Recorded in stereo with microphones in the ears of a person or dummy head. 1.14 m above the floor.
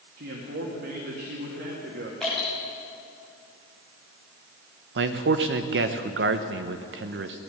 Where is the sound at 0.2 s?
55° right (ahead or behind), 2.0 m.